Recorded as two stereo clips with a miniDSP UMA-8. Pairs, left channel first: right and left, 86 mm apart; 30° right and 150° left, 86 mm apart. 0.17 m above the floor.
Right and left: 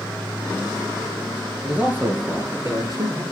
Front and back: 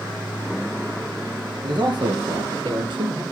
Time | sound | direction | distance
1.6 | a man speaking | 160° left | 2.5 m